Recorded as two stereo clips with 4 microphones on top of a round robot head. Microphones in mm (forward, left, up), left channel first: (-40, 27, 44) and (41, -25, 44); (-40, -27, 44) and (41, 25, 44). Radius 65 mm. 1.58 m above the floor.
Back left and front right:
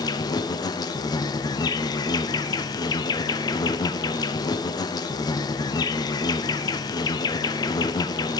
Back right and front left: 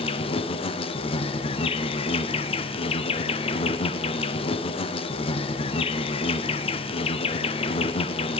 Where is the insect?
165° right, 0.8 m.